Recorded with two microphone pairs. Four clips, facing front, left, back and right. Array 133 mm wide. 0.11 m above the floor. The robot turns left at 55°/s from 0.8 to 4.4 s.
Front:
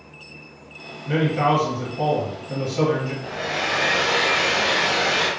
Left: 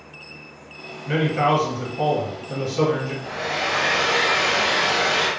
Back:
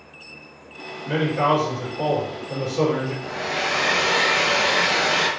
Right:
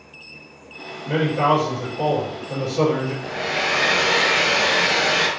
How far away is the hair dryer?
About 0.8 m.